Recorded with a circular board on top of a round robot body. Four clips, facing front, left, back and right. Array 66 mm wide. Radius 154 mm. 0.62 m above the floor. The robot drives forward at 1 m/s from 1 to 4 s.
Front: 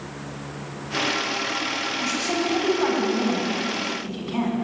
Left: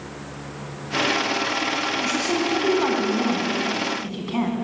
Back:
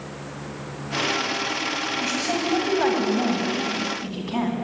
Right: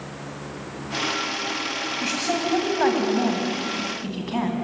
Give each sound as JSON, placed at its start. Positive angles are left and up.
{"t": 2.0, "sound": "a woman speaking", "azimuth_deg": -110, "distance_m": 6.0}